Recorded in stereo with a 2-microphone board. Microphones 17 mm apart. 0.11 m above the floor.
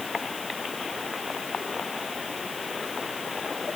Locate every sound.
Only background noise.